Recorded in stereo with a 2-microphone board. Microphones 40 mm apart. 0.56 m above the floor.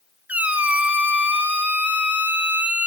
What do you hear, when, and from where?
0.3 s a squeak: 45° right (ahead or behind), 0.8 m